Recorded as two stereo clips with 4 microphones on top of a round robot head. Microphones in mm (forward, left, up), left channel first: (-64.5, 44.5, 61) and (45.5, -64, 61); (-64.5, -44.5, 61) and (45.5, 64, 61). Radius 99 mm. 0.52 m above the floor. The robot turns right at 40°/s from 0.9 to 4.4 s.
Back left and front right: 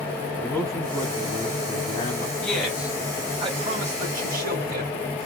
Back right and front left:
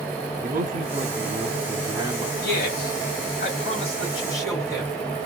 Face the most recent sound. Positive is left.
turn(degrees=-65)